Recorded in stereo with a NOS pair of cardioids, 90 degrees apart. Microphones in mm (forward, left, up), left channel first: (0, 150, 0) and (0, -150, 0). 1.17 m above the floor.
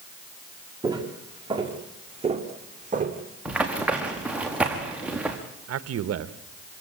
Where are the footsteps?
15° right, 5 m; by 3.2 s 30° right, 3.5 m.